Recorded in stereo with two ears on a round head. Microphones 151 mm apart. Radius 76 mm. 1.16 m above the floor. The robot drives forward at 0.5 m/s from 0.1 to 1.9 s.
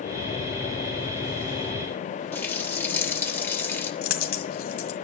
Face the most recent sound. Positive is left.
turn(degrees=60)  # may be behind; listen again after turning